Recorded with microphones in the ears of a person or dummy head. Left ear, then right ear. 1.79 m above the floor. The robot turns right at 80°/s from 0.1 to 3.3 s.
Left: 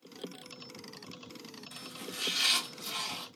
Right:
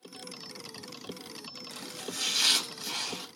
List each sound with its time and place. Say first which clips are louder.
1.7 s chopping: right 3 dB; 120° right, 1.9 m; by 3.3 s 5° left, 1.9 m